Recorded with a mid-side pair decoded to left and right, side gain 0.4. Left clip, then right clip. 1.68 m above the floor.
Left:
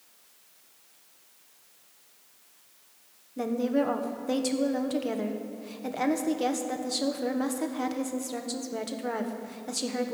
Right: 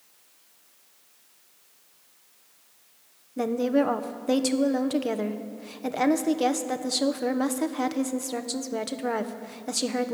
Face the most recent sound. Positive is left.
turn(degrees=-35)